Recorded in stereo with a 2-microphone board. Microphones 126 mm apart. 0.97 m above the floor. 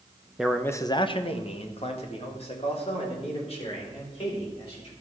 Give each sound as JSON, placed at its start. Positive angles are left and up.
{"t": 0.4, "sound": "a man speaking", "side_deg": -5, "distance_m": 0.7}